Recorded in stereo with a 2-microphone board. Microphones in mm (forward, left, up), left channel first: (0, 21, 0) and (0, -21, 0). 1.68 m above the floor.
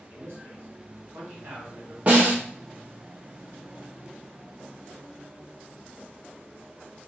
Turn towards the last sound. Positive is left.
turn(degrees=-35)  # may be behind; listen again after turning